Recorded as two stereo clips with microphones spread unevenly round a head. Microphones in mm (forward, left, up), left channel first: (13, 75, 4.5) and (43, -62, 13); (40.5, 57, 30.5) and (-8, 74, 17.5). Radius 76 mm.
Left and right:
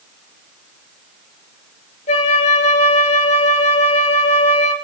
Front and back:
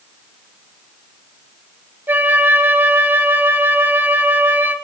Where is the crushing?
I don't hear crushing.